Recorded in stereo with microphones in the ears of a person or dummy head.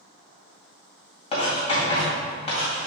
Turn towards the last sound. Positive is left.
turn(degrees=30)  # may be behind; listen again after turning